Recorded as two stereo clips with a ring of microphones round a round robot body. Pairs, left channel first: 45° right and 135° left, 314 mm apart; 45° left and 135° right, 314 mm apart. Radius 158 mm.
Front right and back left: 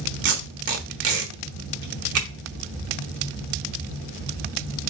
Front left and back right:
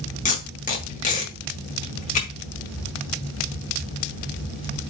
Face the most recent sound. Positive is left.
turn(degrees=105)